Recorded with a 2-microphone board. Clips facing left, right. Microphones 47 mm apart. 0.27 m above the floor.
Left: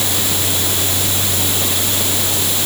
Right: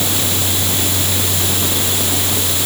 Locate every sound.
Only background noise.